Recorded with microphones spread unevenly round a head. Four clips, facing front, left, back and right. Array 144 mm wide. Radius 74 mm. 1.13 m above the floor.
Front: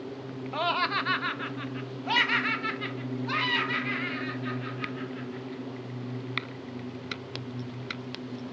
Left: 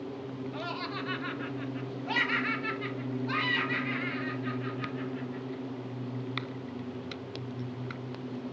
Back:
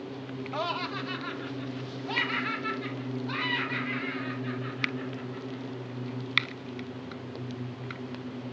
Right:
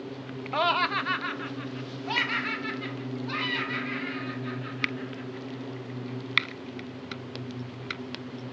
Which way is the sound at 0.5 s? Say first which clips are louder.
Right 15 dB, front 5 dB; 90° right.